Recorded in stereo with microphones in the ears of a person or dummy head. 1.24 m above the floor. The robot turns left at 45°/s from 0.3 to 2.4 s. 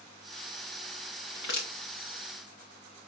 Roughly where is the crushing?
Left.